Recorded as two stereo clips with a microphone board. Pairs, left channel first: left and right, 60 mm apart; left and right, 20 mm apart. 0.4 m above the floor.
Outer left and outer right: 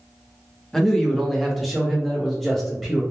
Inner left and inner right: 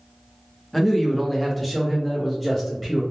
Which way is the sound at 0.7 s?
5° left (ahead or behind).